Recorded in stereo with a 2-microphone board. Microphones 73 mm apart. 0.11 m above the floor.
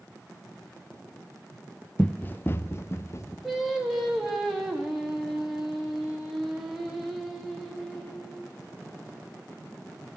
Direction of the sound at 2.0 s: 15° left (ahead or behind).